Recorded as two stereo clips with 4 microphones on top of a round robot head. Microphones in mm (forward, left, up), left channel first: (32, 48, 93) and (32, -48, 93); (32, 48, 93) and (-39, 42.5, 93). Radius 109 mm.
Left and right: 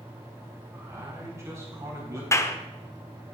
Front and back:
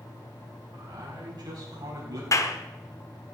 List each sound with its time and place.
0.7 s a man speaking: 155° right, 5.5 m; by 2.2 s 145° right, 5 m
2.3 s a clap: 35° left, 1.5 m